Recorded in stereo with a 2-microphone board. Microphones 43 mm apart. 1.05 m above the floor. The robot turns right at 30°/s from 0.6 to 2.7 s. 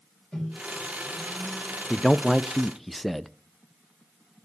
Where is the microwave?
30° left (ahead or behind), 4.5 m; by 1.8 s 5° right (ahead or behind), 4.5 m.